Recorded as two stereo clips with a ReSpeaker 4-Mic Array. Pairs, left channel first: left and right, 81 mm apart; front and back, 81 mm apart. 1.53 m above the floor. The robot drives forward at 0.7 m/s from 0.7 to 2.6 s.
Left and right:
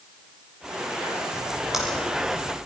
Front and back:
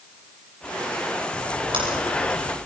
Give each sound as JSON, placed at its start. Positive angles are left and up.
{"t": 1.3, "sound": "a splash", "azimuth_deg": -175, "distance_m": 6.0}